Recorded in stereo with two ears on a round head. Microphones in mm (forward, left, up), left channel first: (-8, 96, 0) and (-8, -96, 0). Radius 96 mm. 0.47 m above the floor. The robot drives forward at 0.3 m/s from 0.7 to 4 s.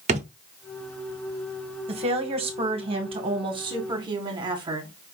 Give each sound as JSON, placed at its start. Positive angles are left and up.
{"t": 0.1, "sound": "a drawer", "side_deg": -30, "distance_m": 0.6}
{"t": 1.9, "sound": "a woman speaking", "side_deg": -30, "distance_m": 0.9}